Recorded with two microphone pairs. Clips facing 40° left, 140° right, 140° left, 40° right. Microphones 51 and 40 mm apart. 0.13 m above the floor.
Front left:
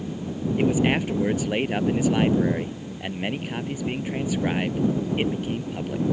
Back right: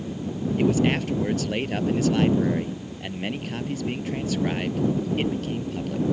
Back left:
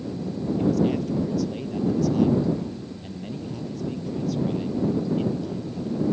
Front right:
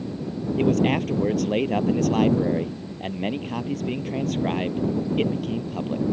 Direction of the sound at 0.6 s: 30° right.